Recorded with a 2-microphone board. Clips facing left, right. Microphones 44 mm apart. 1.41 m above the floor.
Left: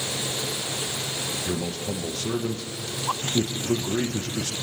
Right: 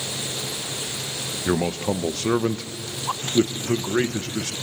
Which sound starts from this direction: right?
A man speaking, at 1.5 s.